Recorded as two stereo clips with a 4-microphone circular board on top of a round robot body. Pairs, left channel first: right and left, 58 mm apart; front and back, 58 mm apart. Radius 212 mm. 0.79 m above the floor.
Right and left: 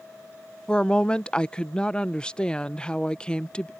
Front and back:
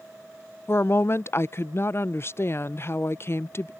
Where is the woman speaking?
20° right.